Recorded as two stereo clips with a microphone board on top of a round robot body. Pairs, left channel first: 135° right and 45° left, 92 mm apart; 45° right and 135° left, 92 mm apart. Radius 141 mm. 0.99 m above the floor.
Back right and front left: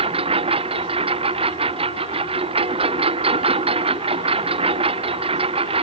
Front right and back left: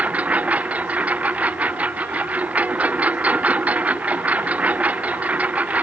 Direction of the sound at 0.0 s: 60° left.